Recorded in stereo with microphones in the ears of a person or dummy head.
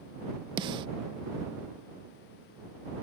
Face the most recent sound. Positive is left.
turn(degrees=-30)  # may be behind; listen again after turning